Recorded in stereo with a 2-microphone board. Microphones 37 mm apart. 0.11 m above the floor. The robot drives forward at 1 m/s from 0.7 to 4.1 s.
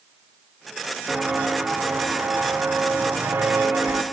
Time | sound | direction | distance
1.1 | footsteps | 25° right (ahead or behind) | 1.5 m